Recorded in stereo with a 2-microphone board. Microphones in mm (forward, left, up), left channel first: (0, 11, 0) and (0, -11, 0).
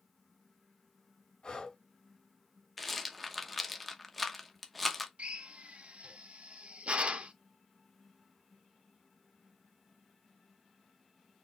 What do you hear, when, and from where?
1.4 s breathing: 45° left (ahead or behind), 2.5 m
2.8 s a rattle: centre (ahead or behind), 0.8 m
5.2 s a drill: 85° right, 0.6 m